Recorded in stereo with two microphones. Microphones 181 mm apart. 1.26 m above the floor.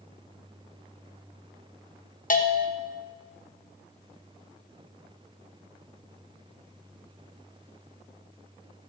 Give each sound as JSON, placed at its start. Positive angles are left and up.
{"t": 2.3, "sound": "a bell", "side_deg": 50, "distance_m": 1.2}